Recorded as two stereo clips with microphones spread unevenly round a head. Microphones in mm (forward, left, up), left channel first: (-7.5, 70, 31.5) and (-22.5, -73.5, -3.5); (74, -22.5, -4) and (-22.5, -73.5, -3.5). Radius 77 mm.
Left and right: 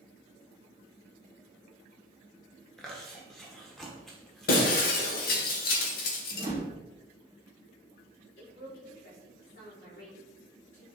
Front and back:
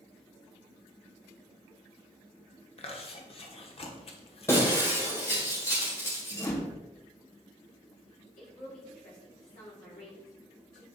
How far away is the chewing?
About 1.3 m.